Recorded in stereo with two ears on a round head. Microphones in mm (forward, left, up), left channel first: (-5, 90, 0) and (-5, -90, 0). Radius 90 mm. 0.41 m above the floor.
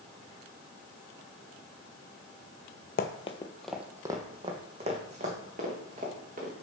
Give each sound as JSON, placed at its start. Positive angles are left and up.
{"t": 3.0, "sound": "running footsteps", "side_deg": 50, "distance_m": 0.7}